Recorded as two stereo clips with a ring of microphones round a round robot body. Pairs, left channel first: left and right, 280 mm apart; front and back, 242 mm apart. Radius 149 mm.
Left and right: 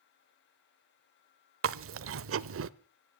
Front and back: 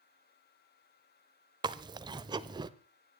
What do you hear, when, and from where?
1.6 s chewing: 110° right, 0.7 m